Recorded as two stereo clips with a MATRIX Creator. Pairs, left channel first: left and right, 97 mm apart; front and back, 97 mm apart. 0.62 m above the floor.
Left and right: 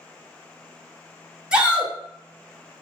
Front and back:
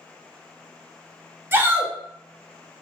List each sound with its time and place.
1.5 s a shout: 155° right, 0.7 m